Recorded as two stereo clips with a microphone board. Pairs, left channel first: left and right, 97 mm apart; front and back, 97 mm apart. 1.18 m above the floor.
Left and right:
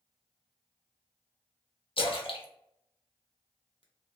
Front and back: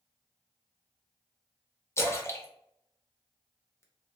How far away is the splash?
About 0.5 m.